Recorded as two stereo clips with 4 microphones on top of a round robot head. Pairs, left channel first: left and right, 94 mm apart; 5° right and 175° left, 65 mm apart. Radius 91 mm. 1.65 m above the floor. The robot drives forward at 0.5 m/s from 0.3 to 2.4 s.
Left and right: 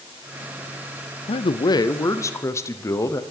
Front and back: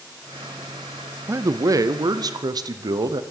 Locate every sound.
1.3 s a man speaking: 120° left, 0.5 m; by 3.2 s 150° left, 0.9 m